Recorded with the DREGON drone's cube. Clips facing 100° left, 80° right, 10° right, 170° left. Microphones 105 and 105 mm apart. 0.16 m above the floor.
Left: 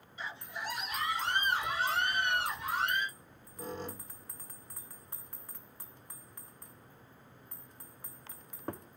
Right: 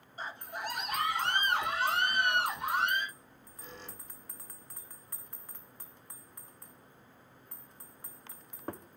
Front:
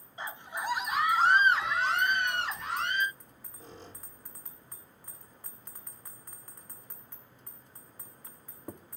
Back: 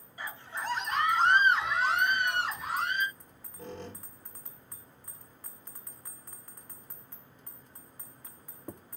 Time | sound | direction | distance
0.2 | a scream | 65° right | 1.4 m
3.1 | a squeak | 145° left | 3 m